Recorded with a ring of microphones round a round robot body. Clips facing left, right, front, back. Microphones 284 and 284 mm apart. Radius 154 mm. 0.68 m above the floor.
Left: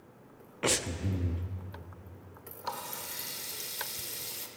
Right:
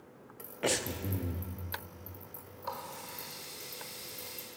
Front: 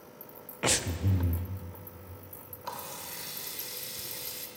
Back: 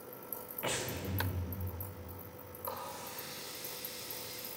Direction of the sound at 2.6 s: 50° left.